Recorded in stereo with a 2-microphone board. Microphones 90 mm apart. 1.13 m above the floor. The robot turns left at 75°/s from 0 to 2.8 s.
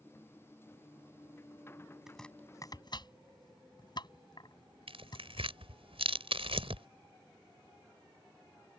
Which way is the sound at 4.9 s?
80° right.